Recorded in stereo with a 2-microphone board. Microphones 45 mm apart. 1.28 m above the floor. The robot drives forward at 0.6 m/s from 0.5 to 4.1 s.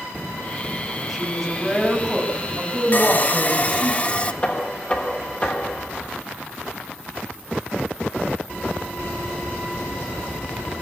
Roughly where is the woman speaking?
Centre.